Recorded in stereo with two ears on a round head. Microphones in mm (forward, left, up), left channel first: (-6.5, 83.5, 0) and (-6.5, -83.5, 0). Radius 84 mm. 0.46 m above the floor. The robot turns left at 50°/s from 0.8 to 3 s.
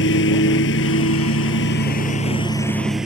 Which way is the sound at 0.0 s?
110° left.